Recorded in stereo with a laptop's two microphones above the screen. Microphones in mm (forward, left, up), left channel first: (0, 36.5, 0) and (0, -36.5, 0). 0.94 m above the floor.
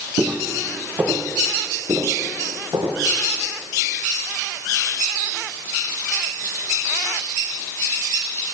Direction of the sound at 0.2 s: 10° right (ahead or behind).